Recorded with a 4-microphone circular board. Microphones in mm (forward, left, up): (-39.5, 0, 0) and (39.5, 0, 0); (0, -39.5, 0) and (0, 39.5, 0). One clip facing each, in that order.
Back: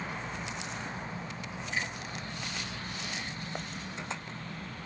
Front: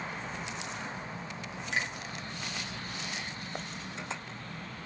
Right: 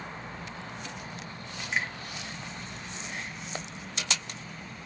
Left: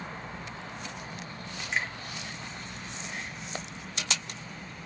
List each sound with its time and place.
1.7 s a finger snap: 5° right, 1.8 m